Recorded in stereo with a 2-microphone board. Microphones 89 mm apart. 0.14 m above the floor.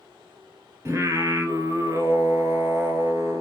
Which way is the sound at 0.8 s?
30° right (ahead or behind).